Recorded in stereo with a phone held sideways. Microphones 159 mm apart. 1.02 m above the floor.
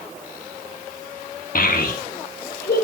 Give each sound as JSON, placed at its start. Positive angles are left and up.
{"t": 1.6, "sound": "a child speaking", "side_deg": 65, "distance_m": 1.0}